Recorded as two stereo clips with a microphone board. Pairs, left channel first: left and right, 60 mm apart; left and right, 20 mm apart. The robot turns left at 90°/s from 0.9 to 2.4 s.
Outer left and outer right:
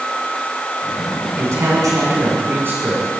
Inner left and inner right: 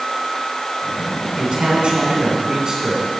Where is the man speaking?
45° right, 2.5 m; by 3.1 s 135° right, 2.5 m.